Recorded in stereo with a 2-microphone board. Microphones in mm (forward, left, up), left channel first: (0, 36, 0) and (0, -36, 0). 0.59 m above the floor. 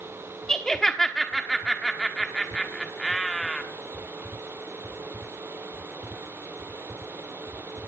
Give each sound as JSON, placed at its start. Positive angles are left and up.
{"t": 0.5, "sound": "laughter", "side_deg": 10, "distance_m": 1.0}